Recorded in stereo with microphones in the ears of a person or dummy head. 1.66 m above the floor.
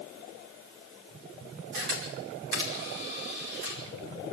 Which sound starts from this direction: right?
A camera shutter, at 1.7 s.